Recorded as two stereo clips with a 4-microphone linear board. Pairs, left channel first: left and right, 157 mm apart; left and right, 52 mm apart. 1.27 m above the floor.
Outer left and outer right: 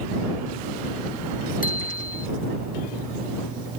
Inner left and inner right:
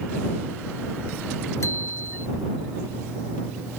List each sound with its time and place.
1.6 s a bicycle bell: 60° left (ahead or behind)